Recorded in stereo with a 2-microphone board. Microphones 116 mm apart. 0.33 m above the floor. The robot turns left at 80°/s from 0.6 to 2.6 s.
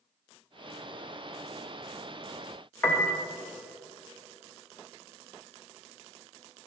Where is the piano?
20° left (ahead or behind), 1.1 m.